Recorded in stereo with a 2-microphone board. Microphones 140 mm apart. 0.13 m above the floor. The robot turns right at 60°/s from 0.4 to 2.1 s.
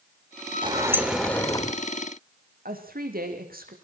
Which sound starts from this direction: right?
A woman speaking, at 2.6 s.